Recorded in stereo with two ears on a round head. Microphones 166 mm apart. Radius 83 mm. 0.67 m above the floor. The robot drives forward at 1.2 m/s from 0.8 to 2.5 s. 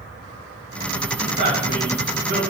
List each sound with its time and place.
1.2 s a man speaking: 75° right (ahead or behind), 3.5 m; by 2.4 s 60° right (ahead or behind), 4 m